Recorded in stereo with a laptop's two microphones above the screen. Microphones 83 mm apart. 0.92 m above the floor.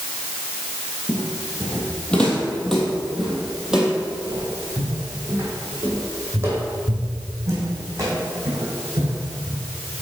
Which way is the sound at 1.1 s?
30° left (ahead or behind).